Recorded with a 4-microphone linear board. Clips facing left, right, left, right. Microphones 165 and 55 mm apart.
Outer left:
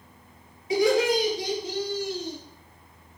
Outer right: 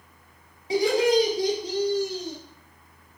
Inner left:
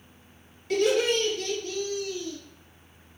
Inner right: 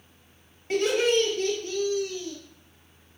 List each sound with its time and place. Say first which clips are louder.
0.7 s laughter: outer right 1 dB, even; 35° right (ahead or behind), 2.5 m; by 2.4 s 45° right (ahead or behind), 1.7 m